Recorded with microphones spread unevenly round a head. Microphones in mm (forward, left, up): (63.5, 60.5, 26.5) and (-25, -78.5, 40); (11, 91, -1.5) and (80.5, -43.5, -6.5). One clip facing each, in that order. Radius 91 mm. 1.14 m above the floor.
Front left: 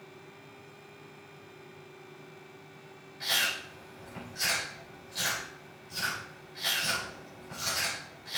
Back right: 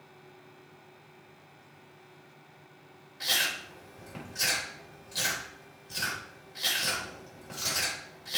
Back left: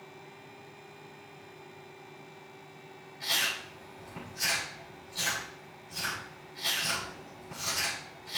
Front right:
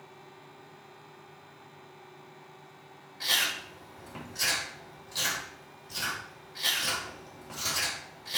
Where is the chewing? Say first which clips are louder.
Even, front right 1 dB; 95° right, 4 m.